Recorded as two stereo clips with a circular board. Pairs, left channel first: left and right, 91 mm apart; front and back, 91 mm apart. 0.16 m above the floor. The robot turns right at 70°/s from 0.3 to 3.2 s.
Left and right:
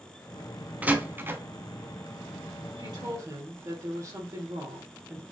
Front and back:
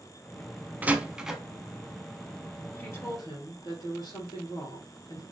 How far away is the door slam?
About 0.7 m.